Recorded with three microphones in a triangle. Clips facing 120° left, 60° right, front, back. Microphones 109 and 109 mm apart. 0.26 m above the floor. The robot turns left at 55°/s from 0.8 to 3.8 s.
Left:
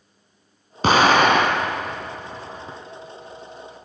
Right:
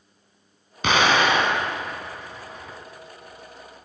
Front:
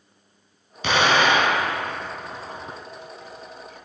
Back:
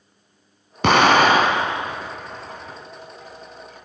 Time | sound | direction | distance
0.8 | an explosion | 165° left | 0.9 m